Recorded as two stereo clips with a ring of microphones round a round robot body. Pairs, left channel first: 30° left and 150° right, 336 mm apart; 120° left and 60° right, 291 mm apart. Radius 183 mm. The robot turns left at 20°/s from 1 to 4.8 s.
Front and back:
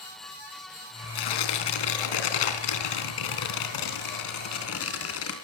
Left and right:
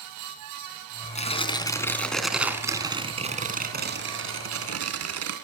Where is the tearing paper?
50° left, 3.5 m; by 5.3 s 20° right, 3.5 m.